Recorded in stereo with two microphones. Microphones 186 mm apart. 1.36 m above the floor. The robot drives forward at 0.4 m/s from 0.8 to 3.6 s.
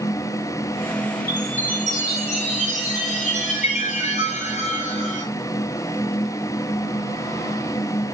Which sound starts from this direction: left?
A chime, at 1.3 s.